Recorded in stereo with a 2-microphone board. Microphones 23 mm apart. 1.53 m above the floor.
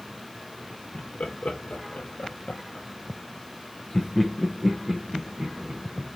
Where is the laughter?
80° left, 1.8 m; by 6.2 s 40° right (ahead or behind), 1.8 m.